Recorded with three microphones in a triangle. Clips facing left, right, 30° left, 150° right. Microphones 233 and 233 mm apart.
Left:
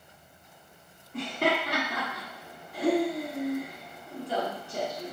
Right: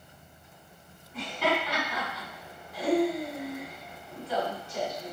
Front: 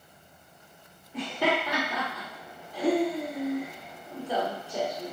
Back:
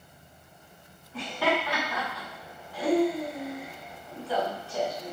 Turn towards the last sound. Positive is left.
turn(degrees=95)